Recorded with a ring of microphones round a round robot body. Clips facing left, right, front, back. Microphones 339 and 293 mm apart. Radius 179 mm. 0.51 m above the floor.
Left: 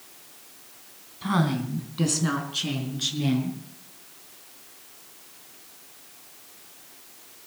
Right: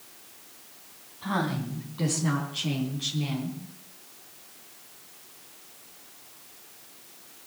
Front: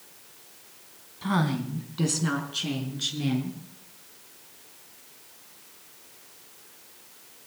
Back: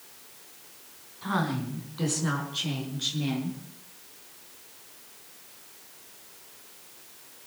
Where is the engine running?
No engine running in this recording.